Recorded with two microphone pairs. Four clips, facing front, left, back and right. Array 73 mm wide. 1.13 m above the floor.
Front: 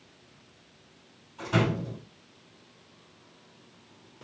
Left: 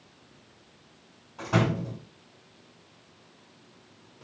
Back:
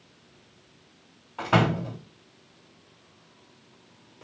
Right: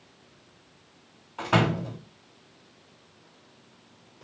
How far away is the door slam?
About 1.6 m.